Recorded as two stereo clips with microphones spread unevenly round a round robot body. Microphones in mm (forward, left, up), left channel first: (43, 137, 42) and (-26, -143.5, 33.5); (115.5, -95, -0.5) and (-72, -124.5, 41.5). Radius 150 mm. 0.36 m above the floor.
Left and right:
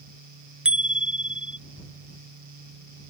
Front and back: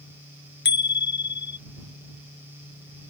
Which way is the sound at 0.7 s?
15° right.